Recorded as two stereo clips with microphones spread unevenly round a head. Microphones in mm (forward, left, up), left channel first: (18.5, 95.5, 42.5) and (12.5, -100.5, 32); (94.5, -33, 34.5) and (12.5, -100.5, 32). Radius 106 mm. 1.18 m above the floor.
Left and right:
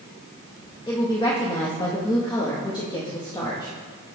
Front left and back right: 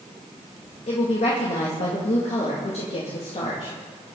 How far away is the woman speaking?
About 2 m.